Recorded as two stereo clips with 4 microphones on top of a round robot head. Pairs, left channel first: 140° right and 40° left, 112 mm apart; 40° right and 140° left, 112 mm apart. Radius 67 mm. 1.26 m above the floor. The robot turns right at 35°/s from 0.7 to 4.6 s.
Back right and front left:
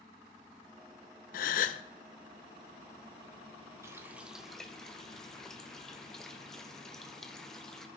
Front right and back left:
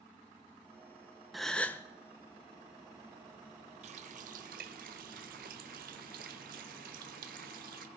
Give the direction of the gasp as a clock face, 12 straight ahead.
4 o'clock.